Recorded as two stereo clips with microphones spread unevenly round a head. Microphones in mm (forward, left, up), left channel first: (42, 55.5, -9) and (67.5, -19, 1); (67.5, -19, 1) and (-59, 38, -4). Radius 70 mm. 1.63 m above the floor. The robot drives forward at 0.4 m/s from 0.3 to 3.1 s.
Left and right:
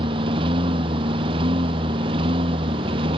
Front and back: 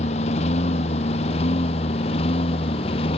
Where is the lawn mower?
70° right; by 3.2 s 75° right.